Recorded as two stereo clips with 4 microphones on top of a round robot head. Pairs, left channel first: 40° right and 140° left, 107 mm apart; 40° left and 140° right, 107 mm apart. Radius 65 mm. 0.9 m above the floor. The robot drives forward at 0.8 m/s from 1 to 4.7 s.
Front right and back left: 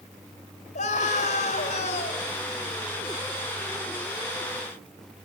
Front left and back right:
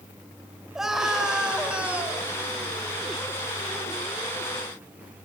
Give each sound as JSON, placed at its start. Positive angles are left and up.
{"t": 0.8, "sound": "a scream", "azimuth_deg": -55, "distance_m": 5.5}